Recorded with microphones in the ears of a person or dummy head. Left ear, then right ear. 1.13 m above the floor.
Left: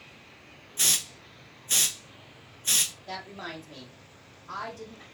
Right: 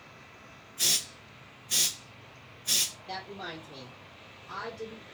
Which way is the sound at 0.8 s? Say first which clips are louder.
Left 2 dB; 40° left (ahead or behind).